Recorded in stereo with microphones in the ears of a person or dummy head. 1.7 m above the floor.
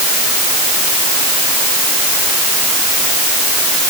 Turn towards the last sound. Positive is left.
No sound to turn to.